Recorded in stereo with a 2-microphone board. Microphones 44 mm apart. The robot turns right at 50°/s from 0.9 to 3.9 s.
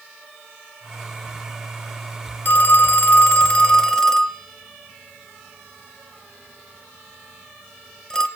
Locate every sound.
2.5 s a phone ringing: 40° left (ahead or behind), 0.6 m; by 8.3 s 15° left (ahead or behind), 0.6 m